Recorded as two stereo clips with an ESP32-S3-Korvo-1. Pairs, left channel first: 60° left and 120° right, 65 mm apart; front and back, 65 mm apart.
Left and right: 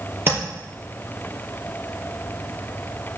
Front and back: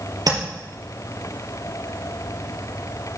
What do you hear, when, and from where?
0.3 s tapping: 175° right, 4.5 m